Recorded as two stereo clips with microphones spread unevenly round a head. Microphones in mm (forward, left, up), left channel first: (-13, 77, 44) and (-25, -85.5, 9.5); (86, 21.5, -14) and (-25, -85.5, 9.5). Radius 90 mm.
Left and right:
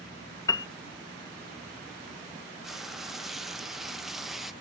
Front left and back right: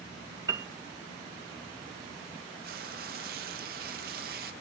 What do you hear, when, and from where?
0.5 s a piano: 155° left
2.6 s frying: straight behind